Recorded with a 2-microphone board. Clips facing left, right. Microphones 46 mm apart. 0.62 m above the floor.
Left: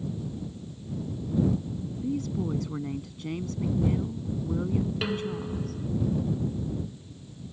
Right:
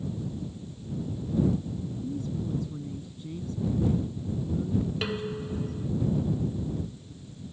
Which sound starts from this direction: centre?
Dishes clattering, at 5.0 s.